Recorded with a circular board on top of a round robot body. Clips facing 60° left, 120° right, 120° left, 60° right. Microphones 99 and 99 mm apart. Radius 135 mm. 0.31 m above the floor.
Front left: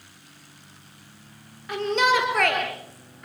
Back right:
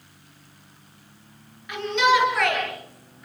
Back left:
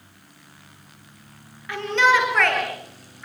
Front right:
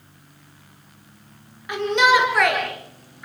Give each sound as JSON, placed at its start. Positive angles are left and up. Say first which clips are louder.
{"t": 1.7, "sound": "a shout", "louder": "back right 1 dB, front right 2 dB", "azimuth_deg": 10, "distance_m": 7.0}